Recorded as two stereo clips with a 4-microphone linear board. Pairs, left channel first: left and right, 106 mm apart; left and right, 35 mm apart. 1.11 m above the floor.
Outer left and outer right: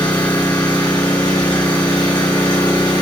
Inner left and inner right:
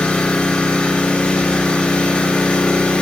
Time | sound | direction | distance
0.0 | an engine running | 35° left (ahead or behind) | 4.5 m